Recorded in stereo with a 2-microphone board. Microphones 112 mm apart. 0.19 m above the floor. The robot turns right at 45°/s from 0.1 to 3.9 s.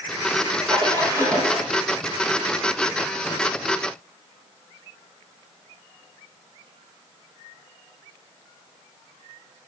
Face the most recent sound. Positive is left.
turn(degrees=100)